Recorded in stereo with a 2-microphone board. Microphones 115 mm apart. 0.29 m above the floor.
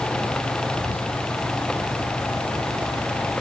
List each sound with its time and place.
0.8 s whispering: 15° left (ahead or behind), 1.6 m